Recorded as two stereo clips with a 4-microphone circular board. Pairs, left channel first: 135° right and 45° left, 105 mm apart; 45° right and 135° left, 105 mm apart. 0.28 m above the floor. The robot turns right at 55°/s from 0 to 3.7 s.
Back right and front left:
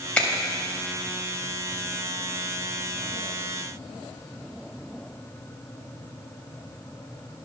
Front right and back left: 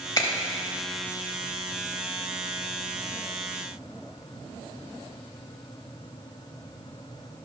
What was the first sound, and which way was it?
A finger snap, 65° right.